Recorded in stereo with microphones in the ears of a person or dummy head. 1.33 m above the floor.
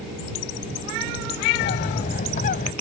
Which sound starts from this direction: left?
A bird, at 1.6 s.